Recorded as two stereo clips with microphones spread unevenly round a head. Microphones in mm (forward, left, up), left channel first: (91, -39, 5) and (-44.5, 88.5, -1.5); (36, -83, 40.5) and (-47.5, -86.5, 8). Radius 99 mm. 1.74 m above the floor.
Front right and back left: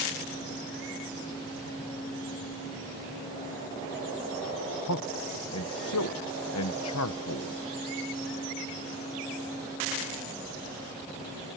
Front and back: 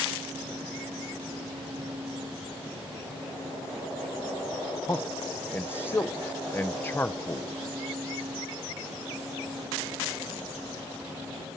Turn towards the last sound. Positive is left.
turn(degrees=-60)